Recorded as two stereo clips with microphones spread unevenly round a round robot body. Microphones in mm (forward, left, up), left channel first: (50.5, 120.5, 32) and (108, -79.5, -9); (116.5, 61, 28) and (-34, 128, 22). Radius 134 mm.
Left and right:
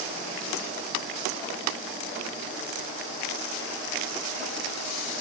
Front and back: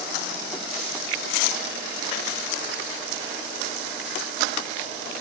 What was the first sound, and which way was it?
Only background noise.